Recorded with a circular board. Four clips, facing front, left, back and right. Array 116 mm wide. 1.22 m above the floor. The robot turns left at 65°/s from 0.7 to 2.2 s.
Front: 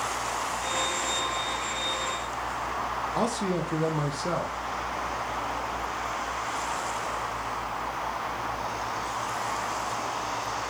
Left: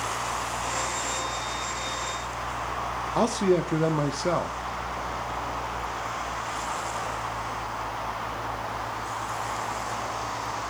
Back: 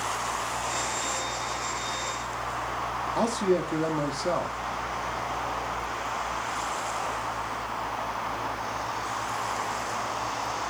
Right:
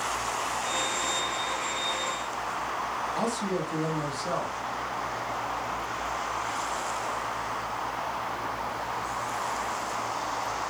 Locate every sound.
3.1 s a man speaking: 85° left, 0.8 m